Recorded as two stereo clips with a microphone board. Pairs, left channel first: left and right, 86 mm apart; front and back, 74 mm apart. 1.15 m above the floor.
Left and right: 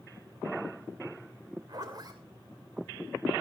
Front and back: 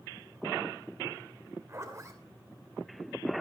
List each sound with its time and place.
1.7 s a zipper: 130° right, 2.5 m